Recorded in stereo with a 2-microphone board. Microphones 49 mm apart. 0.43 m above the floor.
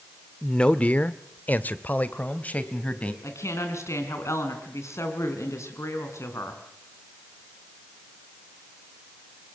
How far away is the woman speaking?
About 4.5 m.